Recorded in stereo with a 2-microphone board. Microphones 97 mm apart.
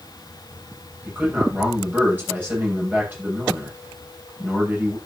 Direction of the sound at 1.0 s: 20° right (ahead or behind).